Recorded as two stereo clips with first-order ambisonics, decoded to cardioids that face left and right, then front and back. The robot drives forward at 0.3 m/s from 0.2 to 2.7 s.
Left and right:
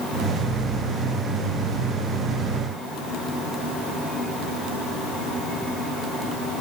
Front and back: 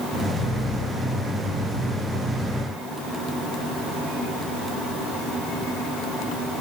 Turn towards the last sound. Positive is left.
No sound to turn to.